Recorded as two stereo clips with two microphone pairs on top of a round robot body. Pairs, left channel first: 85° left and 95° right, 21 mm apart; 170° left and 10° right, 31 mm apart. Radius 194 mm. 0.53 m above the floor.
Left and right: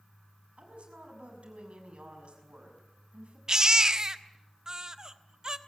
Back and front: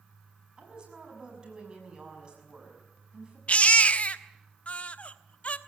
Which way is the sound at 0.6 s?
70° right.